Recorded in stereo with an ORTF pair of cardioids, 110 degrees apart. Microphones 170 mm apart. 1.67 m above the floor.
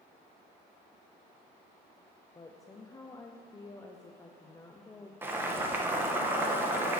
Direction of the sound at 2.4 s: 20° left.